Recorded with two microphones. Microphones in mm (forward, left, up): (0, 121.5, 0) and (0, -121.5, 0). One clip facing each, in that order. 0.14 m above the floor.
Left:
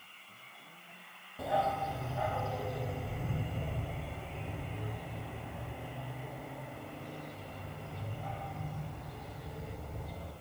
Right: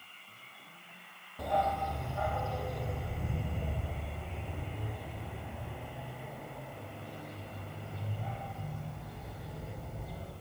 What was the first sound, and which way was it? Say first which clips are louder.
A dog barking: right 1 dB; 5° left (ahead or behind).